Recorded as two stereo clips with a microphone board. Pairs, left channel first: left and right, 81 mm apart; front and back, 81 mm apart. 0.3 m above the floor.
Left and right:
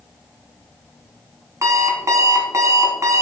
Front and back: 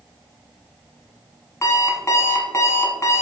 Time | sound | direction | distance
1.6 | an alarm clock | 45° right | 1.5 m